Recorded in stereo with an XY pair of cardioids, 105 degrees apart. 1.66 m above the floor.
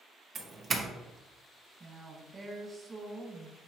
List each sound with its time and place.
0.3 s a doorbell: 40° right, 0.7 m
1.8 s a woman speaking: 25° right, 1.4 m